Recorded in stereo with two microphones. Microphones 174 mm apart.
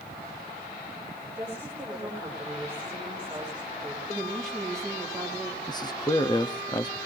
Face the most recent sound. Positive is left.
turn(degrees=25)  # may be behind; listen again after turning